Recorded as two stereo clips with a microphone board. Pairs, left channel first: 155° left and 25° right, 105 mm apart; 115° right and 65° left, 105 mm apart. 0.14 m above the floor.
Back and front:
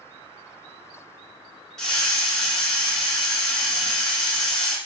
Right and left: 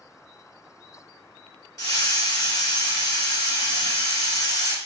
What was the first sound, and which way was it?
A hiss, 120° right.